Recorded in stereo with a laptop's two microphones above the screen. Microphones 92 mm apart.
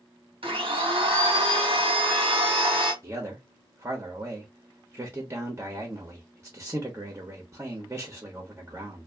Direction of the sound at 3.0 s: 25° right (ahead or behind).